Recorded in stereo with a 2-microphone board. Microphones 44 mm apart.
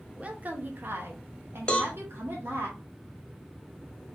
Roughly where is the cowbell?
Left.